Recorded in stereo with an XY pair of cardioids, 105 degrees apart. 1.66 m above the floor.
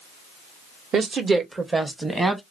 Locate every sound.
0.9 s a woman speaking: 55° right, 1.0 m; by 2.4 s 15° right, 1.3 m